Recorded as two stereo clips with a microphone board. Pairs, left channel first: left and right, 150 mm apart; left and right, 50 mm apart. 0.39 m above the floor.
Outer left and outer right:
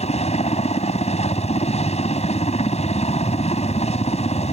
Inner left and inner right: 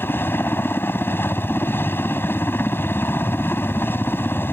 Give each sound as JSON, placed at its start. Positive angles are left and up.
{"t": 0.0, "sound": "a helicopter", "side_deg": 45}